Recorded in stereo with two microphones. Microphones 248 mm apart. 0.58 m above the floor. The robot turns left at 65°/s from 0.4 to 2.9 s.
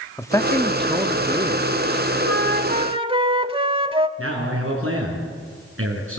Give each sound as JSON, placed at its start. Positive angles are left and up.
{"t": 0.2, "sound": "a man speaking", "side_deg": 10, "distance_m": 1.1}
{"t": 2.2, "sound": "a flute", "azimuth_deg": -115, "distance_m": 0.8}
{"t": 4.2, "sound": "a man speaking", "side_deg": -60, "distance_m": 6.0}